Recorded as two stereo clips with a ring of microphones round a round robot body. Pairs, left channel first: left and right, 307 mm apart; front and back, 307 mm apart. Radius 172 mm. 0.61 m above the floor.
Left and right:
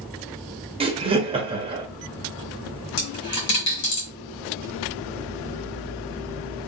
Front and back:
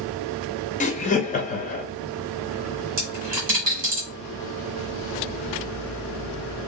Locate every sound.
0.8 s laughter: 35° right, 0.7 m
3.0 s a dropped coin: 125° left, 1.8 m